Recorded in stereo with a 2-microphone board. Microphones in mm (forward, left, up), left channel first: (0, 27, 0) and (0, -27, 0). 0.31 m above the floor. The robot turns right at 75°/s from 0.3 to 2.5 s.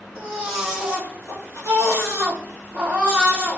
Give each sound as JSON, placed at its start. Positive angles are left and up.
{"t": 0.1, "sound": "a baby crying", "azimuth_deg": 160, "distance_m": 2.5}